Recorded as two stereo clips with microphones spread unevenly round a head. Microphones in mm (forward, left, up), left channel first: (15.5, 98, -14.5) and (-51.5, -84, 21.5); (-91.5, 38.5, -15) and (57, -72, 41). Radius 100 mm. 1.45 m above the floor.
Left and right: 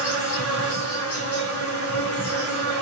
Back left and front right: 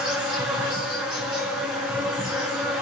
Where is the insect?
50° left, 6 m.